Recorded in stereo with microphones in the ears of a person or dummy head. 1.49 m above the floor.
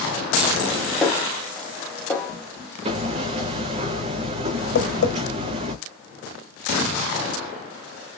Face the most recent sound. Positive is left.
turn(degrees=90)